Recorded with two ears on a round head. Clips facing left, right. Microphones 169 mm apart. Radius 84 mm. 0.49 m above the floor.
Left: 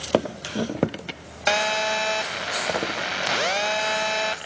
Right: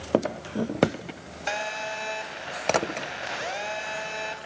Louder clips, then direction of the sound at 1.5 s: Left 8 dB; 70° left (ahead or behind).